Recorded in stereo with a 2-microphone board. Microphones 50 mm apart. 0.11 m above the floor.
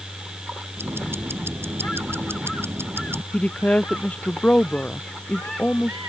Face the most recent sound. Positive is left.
turn(degrees=25)  # may be behind; listen again after turning